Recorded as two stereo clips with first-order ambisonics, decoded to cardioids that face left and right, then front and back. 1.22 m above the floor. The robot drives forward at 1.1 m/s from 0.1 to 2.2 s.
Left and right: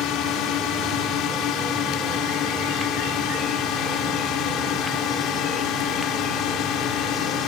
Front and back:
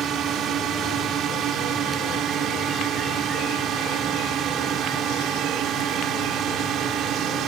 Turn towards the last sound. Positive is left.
turn(degrees=130)